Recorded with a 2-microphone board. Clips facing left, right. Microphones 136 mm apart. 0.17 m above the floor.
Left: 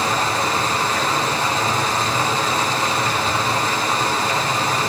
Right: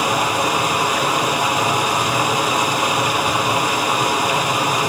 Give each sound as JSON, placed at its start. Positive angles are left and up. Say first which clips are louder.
{"t": 0.0, "sound": "running water", "louder": "right 2 dB", "side_deg": -10, "distance_m": 1.9}